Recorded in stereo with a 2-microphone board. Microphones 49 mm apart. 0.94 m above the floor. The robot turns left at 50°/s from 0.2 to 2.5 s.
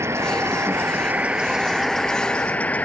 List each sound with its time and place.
0.0 s an insect: 95° right; by 2.9 s 150° left